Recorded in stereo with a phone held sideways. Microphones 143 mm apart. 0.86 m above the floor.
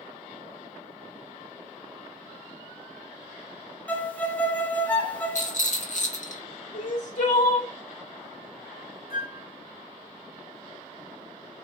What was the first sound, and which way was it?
A violin, 10° left (ahead or behind).